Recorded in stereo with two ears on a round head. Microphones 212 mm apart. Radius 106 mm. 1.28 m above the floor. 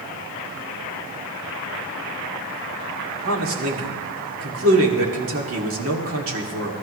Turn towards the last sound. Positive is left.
turn(degrees=-60)  # may be behind; listen again after turning